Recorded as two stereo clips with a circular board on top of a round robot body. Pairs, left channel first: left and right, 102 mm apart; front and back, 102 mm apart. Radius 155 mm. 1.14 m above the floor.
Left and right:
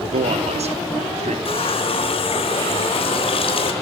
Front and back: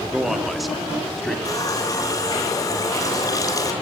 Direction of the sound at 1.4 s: 60° left.